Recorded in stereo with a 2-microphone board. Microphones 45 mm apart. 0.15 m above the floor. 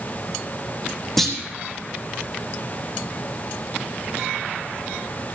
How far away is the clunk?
About 2 m.